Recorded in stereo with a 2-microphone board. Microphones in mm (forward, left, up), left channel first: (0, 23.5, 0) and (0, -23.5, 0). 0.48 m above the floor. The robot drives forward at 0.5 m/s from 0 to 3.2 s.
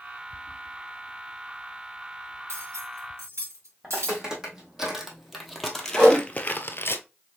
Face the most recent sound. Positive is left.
turn(degrees=-20)  # may be behind; listen again after turning